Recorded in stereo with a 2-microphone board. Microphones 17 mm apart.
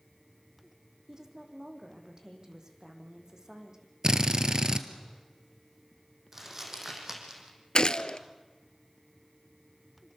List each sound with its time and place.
1.1 s a woman speaking: 35° right (ahead or behind), 4.5 m
4.0 s a drill: 40° right (ahead or behind), 1.4 m
6.3 s crumpling: 20° right (ahead or behind), 5 m
7.8 s a gunshot: 55° left (ahead or behind), 0.9 m